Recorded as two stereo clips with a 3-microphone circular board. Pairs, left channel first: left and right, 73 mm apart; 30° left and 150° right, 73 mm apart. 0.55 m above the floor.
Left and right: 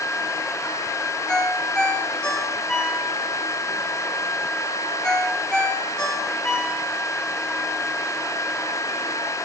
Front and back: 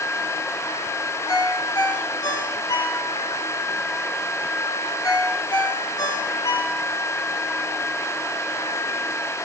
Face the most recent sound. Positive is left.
turn(degrees=10)